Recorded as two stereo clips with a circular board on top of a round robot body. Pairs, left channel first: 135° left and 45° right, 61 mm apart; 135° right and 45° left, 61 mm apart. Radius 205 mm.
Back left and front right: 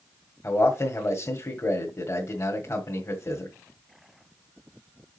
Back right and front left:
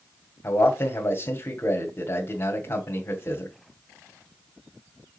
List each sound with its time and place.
0.4 s a man speaking: 175° left, 2.0 m